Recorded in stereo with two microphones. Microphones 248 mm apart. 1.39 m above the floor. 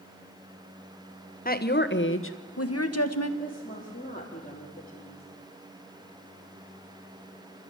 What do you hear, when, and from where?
1.4 s a woman speaking: 35° left (ahead or behind), 1.3 m; by 3.3 s 75° left (ahead or behind), 1.5 m
3.4 s a woman speaking: 35° left (ahead or behind), 3 m